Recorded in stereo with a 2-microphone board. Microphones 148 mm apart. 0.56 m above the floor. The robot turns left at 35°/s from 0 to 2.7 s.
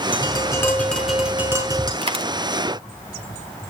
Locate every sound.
0.1 s tapping: 35° left, 5 m; by 1.9 s 30° right, 5 m
2.0 s a dropped coin: 35° right (ahead or behind), 1.9 m; by 2.2 s 40° right (ahead or behind), 1.9 m